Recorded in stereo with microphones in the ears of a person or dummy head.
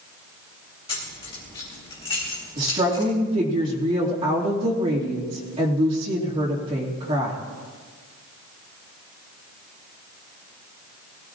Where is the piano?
I don't hear a piano.